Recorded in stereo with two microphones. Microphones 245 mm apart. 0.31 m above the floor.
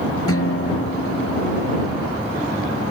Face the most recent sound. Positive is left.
turn(degrees=65)  # may be behind; listen again after turning